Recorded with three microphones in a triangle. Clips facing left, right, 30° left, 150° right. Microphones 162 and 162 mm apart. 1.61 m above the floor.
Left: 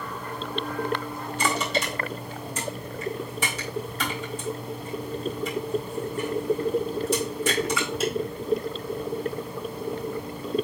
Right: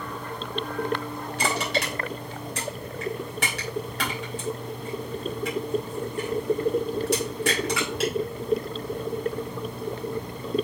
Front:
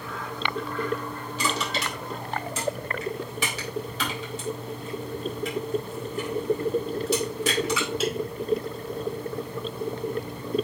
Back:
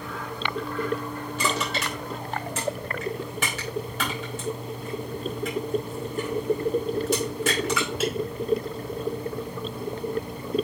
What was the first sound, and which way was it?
Crushing, 110° right.